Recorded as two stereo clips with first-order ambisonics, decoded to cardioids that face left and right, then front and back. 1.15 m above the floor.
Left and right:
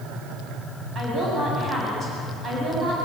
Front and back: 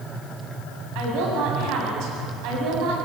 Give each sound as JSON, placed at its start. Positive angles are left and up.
{"t": 0.9, "sound": "a woman speaking", "azimuth_deg": -155, "distance_m": 8.0}